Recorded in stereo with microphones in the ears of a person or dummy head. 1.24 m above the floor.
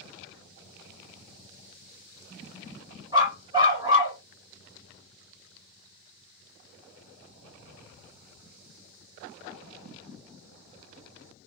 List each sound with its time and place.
3.1 s a dog barking: 25° right (ahead or behind), 2.5 m